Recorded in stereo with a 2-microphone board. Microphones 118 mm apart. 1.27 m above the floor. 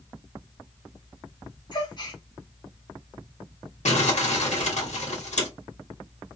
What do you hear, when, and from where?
1.7 s a gasp: 35° left (ahead or behind), 0.8 m
3.9 s crumpling: 70° left (ahead or behind), 1.7 m